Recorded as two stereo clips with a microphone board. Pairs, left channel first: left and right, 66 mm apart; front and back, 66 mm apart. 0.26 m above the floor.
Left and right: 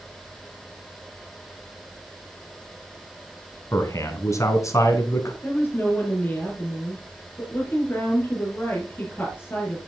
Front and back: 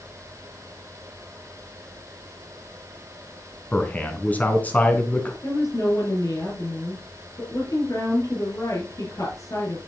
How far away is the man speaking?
About 3 m.